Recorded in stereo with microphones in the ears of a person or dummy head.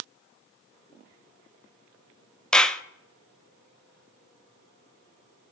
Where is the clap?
5° left (ahead or behind), 0.6 m.